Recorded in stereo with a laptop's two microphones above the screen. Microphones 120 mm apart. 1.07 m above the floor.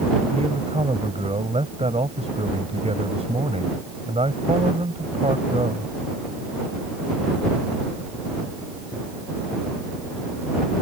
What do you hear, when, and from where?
0.3 s a man speaking: 60° right (ahead or behind)